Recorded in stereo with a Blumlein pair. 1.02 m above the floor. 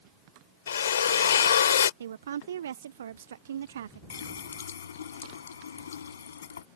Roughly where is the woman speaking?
Ahead right.